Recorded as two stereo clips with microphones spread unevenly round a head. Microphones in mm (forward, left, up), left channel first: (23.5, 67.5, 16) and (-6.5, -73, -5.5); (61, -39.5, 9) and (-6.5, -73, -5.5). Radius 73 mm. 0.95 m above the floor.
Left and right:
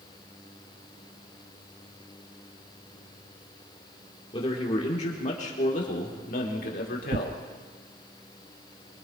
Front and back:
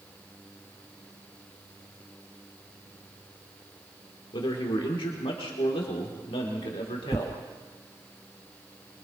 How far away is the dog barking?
I don't hear a dog barking.